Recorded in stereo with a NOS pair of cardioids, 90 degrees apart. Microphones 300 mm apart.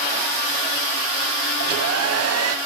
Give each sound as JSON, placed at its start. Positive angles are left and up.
{"t": 1.6, "sound": "a hair dryer", "azimuth_deg": -55, "distance_m": 1.5}